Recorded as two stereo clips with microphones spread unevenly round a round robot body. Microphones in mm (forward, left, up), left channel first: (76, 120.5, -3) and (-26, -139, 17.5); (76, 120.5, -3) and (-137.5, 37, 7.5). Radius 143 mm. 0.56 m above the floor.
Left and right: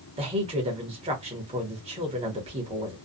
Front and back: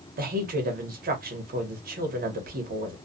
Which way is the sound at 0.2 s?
175° right.